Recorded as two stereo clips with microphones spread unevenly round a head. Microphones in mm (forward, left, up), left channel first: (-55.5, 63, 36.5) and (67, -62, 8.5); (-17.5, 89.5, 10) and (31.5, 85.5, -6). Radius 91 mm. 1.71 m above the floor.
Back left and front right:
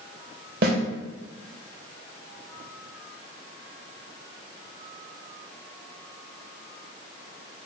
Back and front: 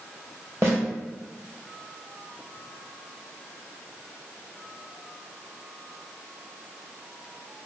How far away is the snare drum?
About 2 m.